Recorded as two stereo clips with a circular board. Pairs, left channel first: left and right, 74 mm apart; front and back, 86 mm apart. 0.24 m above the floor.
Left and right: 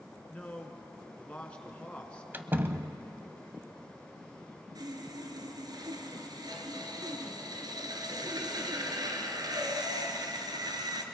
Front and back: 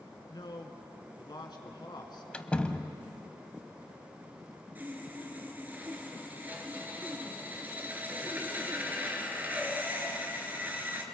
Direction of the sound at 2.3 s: 65° right.